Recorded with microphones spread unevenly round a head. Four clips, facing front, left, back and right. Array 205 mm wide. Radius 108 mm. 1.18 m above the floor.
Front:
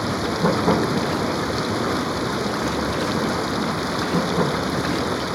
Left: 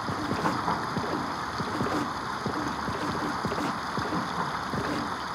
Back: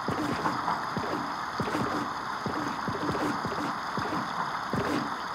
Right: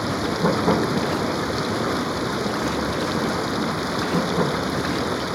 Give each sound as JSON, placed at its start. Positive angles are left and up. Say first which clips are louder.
{"t": 0.0, "sound": "running water", "louder": "right 6 dB, front 7 dB", "azimuth_deg": -35}